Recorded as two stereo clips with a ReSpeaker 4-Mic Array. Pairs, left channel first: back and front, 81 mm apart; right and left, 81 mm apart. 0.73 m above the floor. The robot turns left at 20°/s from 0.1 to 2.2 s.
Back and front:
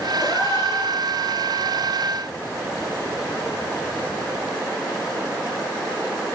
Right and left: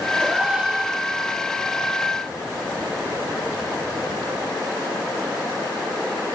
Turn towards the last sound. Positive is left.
turn(degrees=125)